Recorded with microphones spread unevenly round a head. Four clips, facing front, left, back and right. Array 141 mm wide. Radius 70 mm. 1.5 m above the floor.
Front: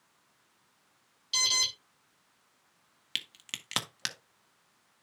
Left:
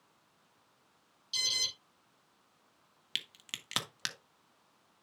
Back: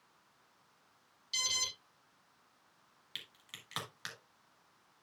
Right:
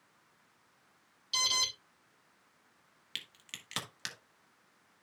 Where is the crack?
25° left, 1.6 m.